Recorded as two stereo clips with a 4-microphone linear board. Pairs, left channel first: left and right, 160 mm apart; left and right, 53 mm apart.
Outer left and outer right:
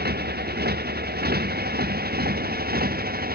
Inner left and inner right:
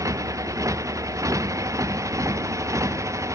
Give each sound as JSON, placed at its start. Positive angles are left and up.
{"t": 0.0, "sound": "a motorcycle", "side_deg": -85}